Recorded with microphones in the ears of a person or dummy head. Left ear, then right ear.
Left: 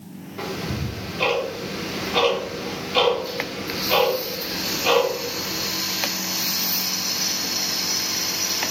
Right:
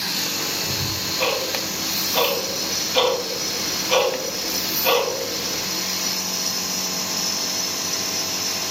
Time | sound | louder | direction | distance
0.4 | ticking | right 5 dB | 15° right (ahead or behind) | 1.4 m